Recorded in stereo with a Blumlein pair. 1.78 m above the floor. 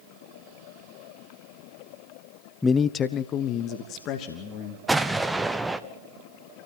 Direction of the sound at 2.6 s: 10° left.